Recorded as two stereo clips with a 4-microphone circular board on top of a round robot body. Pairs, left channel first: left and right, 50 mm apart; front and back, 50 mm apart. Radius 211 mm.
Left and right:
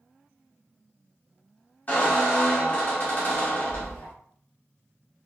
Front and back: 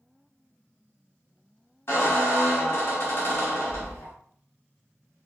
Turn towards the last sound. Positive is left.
turn(degrees=35)